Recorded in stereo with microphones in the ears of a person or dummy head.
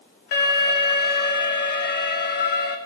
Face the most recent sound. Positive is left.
turn(degrees=60)  # may be behind; listen again after turning